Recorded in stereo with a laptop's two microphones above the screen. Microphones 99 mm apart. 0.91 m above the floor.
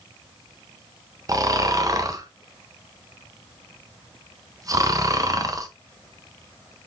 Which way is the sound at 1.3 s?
35° right (ahead or behind).